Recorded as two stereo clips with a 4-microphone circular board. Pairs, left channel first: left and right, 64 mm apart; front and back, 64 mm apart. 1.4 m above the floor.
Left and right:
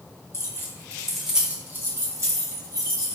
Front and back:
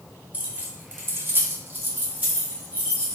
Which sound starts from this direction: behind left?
Keys jangling, at 0.3 s.